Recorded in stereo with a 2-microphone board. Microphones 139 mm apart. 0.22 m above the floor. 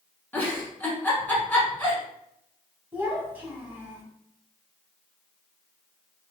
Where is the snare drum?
I don't hear a snare drum.